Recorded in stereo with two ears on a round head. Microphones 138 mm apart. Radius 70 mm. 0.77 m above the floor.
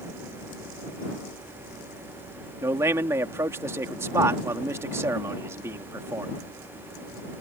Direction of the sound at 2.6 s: 15° right (ahead or behind).